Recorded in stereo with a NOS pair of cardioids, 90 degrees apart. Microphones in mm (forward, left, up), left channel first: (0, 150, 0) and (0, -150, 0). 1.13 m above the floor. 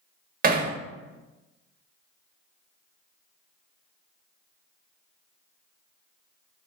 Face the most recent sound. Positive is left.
turn(degrees=-30)